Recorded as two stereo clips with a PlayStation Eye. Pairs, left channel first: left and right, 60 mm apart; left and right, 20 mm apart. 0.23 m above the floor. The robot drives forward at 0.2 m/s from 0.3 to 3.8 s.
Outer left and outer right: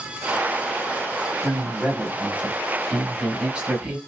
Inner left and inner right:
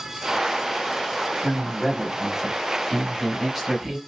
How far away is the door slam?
No door slam in this recording.